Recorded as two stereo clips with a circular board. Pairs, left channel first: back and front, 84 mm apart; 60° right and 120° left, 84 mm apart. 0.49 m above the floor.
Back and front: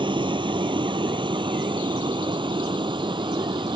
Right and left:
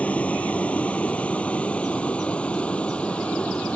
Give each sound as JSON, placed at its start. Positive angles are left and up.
{"t": 0.0, "sound": "a vehicle", "azimuth_deg": 15}